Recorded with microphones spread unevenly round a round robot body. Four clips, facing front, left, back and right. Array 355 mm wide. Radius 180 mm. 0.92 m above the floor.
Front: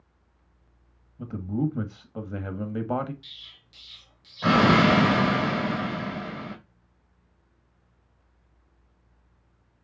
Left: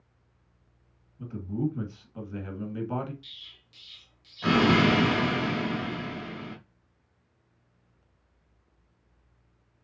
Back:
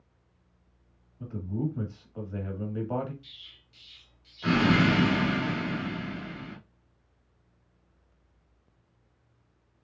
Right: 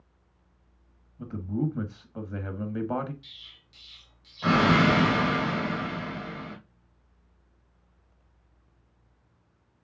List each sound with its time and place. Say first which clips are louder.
1.2 s a man speaking: right 1 dB, front 5 dB; 15° right, 1.6 m
3.2 s an explosion: even, front 3 dB; straight ahead, 2.5 m